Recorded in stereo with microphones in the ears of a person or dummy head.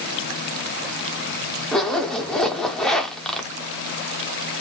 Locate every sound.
1.7 s a zipper: 5° left (ahead or behind), 0.6 m